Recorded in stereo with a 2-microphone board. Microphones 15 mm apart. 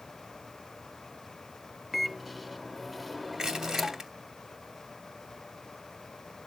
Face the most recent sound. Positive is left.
turn(degrees=-50)  # may be behind; listen again after turning